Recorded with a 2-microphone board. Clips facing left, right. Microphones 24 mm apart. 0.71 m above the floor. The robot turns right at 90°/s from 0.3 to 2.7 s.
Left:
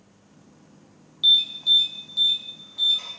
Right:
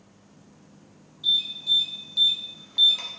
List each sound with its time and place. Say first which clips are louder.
1.2 s an alarm: left 5 dB; 65° left (ahead or behind), 0.7 m; by 3.1 s 50° right (ahead or behind), 0.7 m